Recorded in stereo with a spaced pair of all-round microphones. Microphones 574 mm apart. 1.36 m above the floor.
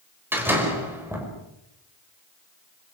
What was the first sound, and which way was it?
A door slam, 5° right (ahead or behind).